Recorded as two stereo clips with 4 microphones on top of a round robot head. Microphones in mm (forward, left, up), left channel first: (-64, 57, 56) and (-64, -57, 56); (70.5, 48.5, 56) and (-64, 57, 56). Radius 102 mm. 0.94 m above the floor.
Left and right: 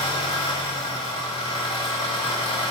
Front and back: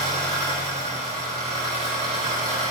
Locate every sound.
0.0 s an engine running: 140° left, 1.5 m